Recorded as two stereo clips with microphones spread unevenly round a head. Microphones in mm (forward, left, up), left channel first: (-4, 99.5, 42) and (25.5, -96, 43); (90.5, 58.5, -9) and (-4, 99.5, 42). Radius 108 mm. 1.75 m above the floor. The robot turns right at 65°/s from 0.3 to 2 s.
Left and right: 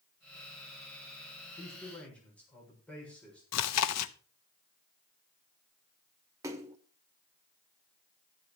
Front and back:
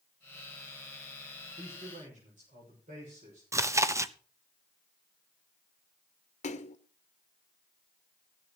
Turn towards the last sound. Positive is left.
turn(degrees=-15)